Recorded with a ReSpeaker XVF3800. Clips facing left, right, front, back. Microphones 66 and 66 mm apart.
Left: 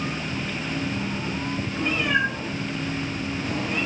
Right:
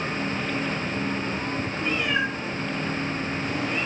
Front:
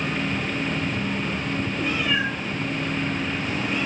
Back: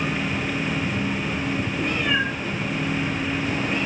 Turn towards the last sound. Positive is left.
turn(degrees=135)